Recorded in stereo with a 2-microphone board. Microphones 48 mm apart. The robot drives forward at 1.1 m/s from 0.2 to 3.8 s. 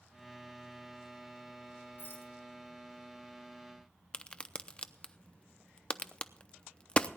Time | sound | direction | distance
2.0 | a rattle | 50° left (ahead or behind) | 4 m
4.1 | a crack | 20° left (ahead or behind) | 0.6 m